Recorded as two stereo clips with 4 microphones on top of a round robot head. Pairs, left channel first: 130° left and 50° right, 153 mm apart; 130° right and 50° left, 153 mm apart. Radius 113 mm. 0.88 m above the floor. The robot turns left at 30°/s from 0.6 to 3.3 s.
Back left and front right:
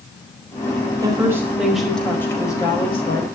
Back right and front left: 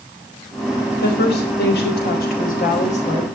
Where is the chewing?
I don't hear chewing.